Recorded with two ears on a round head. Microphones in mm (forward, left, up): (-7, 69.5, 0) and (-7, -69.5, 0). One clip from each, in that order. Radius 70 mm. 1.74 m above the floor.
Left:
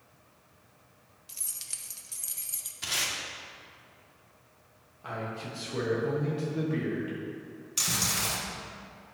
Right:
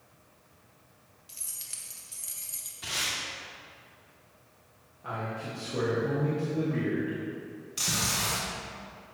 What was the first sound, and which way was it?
Keys jangling, 20° left (ahead or behind).